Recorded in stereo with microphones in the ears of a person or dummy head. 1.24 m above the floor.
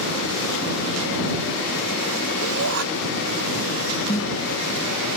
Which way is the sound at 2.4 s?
90° right.